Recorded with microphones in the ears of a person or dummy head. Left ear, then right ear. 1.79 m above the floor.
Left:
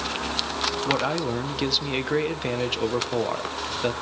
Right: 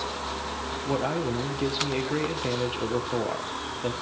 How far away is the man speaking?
About 1.7 m.